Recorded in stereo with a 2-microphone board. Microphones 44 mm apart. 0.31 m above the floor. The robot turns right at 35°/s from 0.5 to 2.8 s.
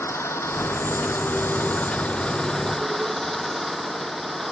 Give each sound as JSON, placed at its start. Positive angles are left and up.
{"t": 0.0, "sound": "an engine running", "azimuth_deg": 100}